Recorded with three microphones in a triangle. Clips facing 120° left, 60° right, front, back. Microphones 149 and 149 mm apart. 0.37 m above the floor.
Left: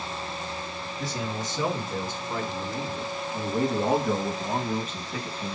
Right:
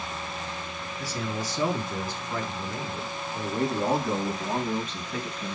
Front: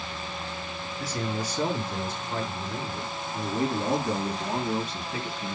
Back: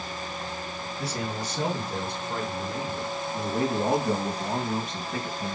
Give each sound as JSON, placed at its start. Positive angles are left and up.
{"t": 1.0, "sound": "a man speaking", "azimuth_deg": -175, "distance_m": 5.0}